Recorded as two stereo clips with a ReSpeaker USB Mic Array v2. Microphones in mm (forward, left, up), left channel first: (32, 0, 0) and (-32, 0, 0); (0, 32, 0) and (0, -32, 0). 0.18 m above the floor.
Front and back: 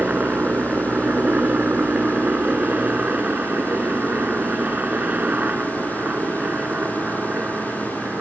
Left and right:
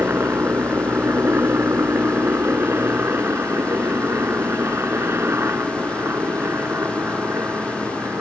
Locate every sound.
0.0 s a helicopter: 125° right